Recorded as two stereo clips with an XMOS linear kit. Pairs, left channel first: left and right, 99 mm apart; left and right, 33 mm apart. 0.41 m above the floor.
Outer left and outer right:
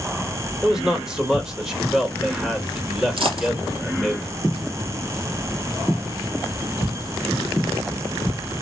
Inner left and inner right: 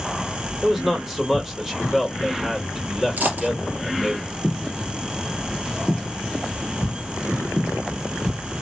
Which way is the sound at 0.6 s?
5° right (ahead or behind).